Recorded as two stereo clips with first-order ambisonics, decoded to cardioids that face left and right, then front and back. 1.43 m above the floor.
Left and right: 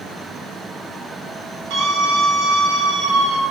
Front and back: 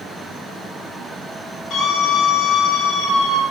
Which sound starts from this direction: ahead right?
A scream, at 1.7 s.